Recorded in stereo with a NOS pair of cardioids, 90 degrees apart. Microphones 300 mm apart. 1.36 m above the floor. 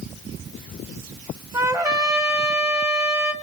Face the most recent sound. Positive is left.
turn(degrees=-10)